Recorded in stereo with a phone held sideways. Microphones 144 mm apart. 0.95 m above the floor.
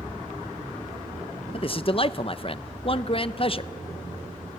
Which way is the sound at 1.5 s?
40° left (ahead or behind).